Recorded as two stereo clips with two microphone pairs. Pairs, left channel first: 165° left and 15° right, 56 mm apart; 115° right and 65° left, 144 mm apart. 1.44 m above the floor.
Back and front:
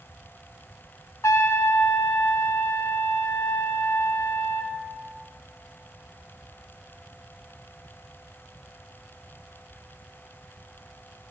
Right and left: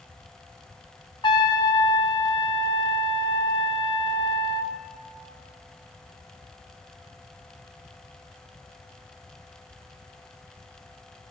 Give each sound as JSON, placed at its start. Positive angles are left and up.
{"t": 1.2, "sound": "a trumpet", "azimuth_deg": -170, "distance_m": 0.8}